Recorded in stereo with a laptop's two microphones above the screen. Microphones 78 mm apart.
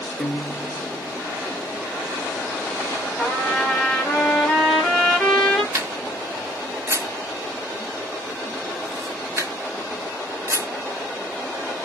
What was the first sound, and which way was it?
A guitar, 20° left (ahead or behind).